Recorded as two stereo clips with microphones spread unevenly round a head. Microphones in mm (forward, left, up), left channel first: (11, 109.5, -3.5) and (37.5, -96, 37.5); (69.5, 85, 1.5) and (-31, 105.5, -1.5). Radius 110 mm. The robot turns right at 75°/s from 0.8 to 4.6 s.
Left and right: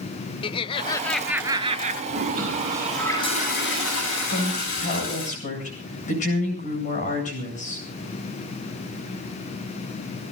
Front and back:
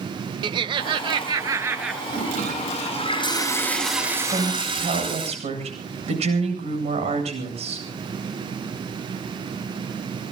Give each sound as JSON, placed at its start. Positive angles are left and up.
{"t": 0.4, "sound": "laughter", "azimuth_deg": 170, "distance_m": 0.6}
{"t": 2.1, "sound": "a toilet flushing", "azimuth_deg": -60, "distance_m": 8.5}
{"t": 4.3, "sound": "a woman speaking", "azimuth_deg": 135, "distance_m": 8.0}